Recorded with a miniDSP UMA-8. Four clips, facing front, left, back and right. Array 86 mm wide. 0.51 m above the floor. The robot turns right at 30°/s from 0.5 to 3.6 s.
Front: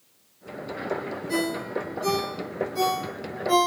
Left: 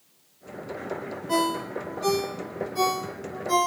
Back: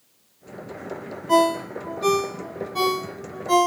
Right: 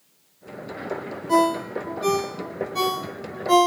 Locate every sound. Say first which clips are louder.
1.3 s a ringtone: right 6 dB, back 9 dB; straight behind, 0.6 m; by 3.7 s 110° right, 0.6 m